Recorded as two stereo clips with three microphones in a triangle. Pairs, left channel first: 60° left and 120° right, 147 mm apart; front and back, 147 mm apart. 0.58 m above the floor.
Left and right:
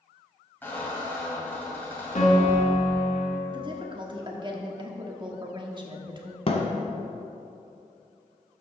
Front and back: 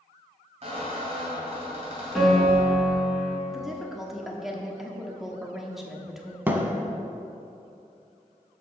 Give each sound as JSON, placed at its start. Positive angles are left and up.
{"t": 0.6, "sound": "a squeak", "azimuth_deg": 135, "distance_m": 2.0}
{"t": 2.1, "sound": "a piano", "azimuth_deg": 90, "distance_m": 1.7}
{"t": 3.5, "sound": "a woman speaking", "azimuth_deg": -95, "distance_m": 1.1}
{"t": 6.5, "sound": "a thud", "azimuth_deg": 100, "distance_m": 1.0}